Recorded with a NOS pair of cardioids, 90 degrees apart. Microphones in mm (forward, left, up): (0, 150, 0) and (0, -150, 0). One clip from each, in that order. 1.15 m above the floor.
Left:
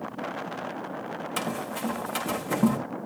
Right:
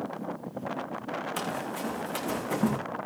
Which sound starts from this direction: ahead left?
Running footsteps, at 1.4 s.